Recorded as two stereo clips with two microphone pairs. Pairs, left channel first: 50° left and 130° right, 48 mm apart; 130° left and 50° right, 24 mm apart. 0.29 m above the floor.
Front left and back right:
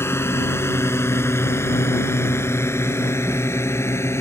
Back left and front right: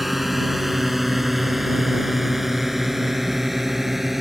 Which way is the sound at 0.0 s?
40° left.